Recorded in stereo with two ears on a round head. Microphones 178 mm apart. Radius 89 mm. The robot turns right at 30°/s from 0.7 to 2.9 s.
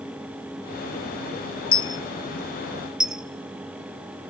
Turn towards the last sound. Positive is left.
turn(degrees=-5)  # may be behind; listen again after turning